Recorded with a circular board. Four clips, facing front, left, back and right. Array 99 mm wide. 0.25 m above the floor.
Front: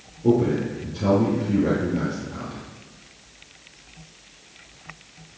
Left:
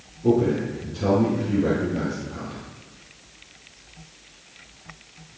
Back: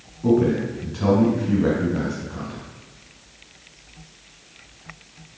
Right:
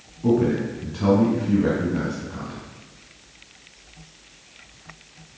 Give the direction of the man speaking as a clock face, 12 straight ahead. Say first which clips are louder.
Even, back 1 dB; 5 o'clock.